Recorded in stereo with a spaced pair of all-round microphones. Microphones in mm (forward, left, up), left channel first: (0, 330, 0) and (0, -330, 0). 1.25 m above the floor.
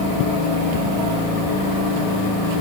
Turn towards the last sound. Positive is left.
No sound to turn to.